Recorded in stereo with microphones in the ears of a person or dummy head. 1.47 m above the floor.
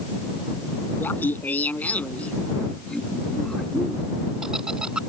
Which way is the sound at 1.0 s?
10° left (ahead or behind).